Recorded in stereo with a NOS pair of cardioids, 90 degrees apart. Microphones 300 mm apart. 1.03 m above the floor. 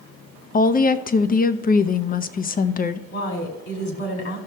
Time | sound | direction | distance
0.5 | a woman speaking | 30° left | 0.7 m
3.1 | a woman speaking | 50° left | 2.5 m